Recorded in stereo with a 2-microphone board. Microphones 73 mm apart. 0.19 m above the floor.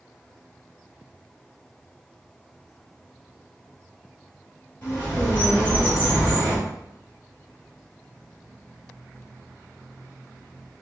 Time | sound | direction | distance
4.8 | a bird | 20° left (ahead or behind) | 1.9 m